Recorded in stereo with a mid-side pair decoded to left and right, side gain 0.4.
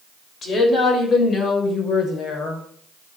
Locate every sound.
0.4 s a woman speaking: 50° left, 6.5 m; by 2.6 s 65° left, 6 m